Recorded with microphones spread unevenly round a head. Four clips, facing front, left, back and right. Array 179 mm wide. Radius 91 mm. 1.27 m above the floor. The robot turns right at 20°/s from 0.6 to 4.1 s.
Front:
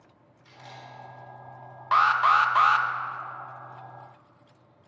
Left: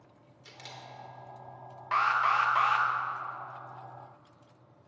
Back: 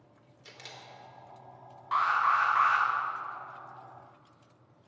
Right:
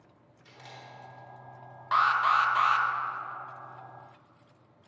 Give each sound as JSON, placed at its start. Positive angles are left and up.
{"t": 0.5, "sound": "a camera shutter", "azimuth_deg": 145, "distance_m": 3.5}
{"t": 1.9, "sound": "an alarm", "azimuth_deg": 5, "distance_m": 0.9}